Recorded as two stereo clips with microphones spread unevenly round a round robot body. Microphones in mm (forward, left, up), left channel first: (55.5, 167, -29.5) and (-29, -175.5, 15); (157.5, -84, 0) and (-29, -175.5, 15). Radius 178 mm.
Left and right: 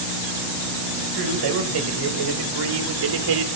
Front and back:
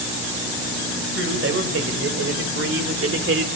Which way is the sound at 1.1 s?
135° right.